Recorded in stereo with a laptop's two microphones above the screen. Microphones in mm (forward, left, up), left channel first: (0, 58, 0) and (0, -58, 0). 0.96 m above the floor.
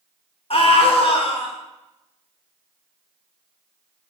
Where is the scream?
55° left (ahead or behind), 1.3 m.